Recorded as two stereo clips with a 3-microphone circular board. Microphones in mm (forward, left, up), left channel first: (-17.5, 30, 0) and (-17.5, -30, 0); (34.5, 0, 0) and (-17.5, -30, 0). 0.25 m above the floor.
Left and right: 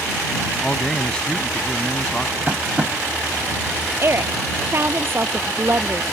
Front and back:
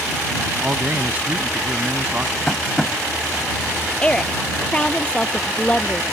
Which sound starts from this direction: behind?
A man speaking, at 0.6 s.